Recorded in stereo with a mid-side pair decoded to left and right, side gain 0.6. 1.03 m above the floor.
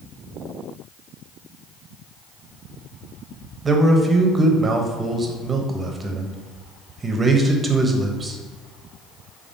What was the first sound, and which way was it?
A man speaking, 25° right.